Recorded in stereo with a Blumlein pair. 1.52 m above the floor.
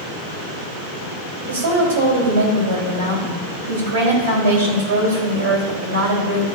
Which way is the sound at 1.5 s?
65° right.